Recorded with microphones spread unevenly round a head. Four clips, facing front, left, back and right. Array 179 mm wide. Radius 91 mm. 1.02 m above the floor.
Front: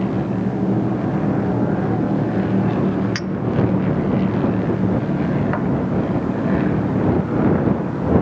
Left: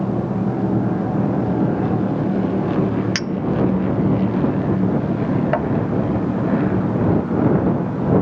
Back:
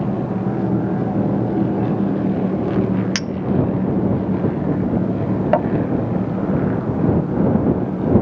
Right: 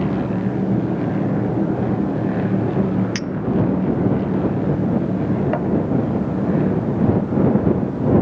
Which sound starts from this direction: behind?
A clink, at 3.1 s.